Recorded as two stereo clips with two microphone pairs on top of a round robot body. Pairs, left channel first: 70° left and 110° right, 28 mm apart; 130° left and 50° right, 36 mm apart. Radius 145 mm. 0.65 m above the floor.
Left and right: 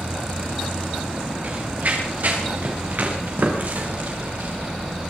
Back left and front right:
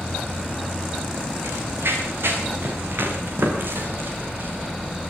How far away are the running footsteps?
About 6.5 m.